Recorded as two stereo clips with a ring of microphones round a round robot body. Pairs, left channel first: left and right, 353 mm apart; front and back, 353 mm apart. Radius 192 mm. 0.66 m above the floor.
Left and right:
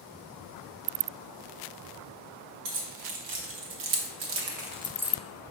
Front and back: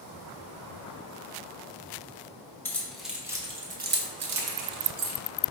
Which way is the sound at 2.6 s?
85° right.